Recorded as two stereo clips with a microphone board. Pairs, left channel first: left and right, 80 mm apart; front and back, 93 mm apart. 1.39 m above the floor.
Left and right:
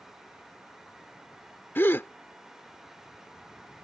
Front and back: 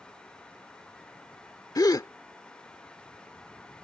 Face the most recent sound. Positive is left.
turn(degrees=35)